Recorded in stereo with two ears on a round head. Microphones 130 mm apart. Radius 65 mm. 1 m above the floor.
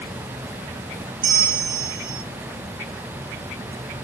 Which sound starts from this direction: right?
A bell, at 1.2 s.